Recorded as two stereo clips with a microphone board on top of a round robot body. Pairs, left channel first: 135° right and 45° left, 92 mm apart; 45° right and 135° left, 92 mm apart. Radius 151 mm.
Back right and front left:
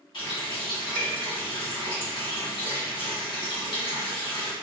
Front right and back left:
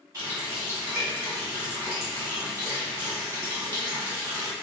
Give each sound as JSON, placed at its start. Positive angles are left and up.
{"t": 0.1, "sound": "a running tap", "azimuth_deg": -165, "distance_m": 1.4}